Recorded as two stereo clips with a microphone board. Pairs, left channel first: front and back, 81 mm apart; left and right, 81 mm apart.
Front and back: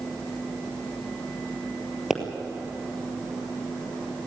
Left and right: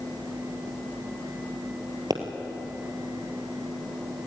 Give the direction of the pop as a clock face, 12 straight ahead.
3 o'clock.